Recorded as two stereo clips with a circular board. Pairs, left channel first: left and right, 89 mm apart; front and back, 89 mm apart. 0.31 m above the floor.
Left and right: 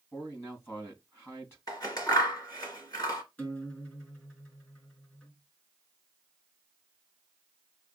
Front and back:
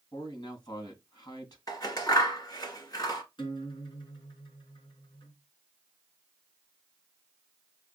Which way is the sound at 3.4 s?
20° left.